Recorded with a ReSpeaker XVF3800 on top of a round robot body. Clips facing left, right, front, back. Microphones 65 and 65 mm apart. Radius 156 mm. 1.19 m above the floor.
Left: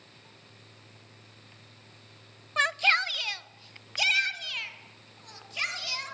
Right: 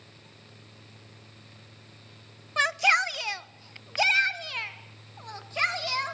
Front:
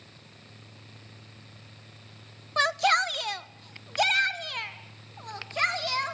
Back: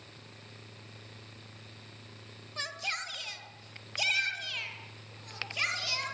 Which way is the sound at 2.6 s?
Straight ahead.